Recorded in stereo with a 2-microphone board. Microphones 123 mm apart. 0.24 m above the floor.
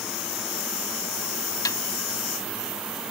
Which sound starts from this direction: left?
A snare drum, at 1.6 s.